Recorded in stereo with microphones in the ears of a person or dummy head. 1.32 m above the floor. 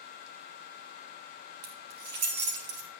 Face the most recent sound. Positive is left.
turn(degrees=-65)  # may be behind; listen again after turning